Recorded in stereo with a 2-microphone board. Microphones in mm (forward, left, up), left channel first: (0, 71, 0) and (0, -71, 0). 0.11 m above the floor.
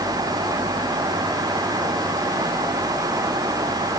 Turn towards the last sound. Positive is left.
No sound to turn to.